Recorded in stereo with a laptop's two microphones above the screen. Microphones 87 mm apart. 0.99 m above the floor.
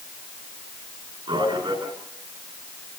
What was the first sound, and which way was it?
A man speaking, 70° right (ahead or behind).